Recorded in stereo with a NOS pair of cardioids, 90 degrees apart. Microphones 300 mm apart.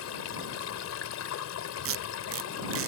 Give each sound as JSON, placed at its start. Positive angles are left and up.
{"t": 0.0, "sound": "running water", "azimuth_deg": 65}
{"t": 1.9, "sound": "tape being pulled", "azimuth_deg": -50}